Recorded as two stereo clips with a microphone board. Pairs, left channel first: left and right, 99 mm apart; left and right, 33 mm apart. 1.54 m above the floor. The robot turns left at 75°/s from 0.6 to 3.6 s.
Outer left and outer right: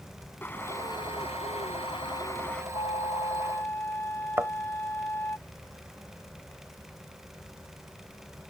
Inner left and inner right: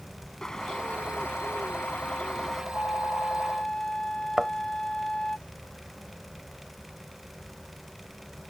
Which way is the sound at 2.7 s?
90° left.